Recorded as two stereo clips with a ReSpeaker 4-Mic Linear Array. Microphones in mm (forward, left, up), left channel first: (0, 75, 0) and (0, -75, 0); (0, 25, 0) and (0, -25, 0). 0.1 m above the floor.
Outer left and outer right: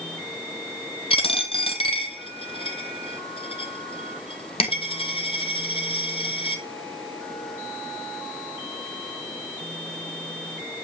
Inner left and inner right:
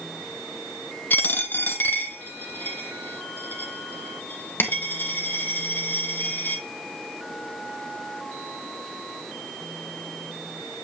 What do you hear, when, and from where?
1.1 s a dropped coin: 40° left (ahead or behind), 1.0 m